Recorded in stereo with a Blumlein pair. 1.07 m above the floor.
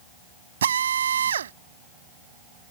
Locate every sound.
0.6 s a drill: 65° right